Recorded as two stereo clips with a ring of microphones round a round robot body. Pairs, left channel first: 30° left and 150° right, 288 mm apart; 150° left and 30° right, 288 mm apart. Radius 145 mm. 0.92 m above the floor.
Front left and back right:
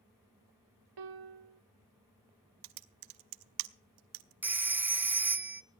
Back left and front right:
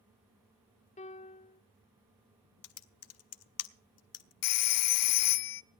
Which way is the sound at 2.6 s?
170° right.